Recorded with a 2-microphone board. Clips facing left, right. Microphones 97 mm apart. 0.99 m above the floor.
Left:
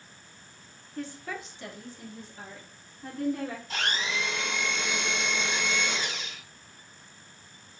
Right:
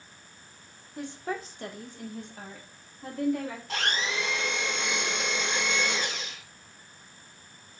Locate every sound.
1.0 s a woman speaking: 10° right (ahead or behind), 0.5 m; by 3.6 s 75° right (ahead or behind), 1.7 m
3.7 s a blender: 65° right (ahead or behind), 1.7 m